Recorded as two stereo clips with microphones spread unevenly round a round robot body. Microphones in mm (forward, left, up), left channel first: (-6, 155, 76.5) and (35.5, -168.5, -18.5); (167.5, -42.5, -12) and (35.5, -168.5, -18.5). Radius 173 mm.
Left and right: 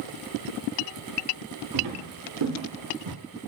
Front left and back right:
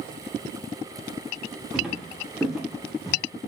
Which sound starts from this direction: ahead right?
Footsteps, at 1.7 s.